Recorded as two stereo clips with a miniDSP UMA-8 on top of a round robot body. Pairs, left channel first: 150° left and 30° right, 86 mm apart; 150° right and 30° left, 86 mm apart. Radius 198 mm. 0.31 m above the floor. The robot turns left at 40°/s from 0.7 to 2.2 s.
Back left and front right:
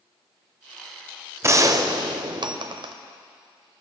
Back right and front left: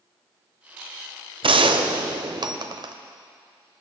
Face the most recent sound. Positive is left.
turn(degrees=0)